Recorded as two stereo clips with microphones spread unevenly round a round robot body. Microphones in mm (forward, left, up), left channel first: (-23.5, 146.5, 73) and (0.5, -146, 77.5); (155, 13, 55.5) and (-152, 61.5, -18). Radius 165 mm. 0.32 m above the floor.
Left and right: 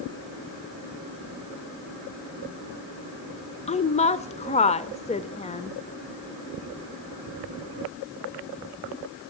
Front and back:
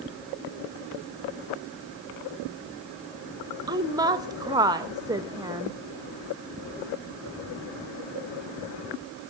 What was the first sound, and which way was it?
A woman speaking, 135° left.